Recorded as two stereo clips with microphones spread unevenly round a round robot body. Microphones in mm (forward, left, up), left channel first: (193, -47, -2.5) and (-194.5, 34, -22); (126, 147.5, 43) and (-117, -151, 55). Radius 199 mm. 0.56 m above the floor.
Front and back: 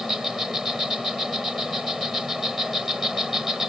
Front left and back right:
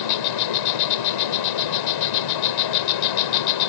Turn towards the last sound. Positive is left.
turn(degrees=80)